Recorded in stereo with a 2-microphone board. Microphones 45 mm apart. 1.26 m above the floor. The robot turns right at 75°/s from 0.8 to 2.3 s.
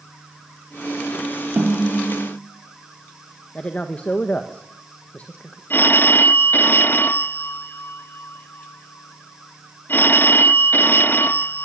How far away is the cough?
No cough in this recording.